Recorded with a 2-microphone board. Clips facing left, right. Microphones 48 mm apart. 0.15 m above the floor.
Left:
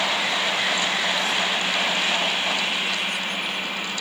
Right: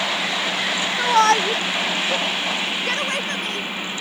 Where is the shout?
70° right (ahead or behind); by 3.7 s 55° right (ahead or behind).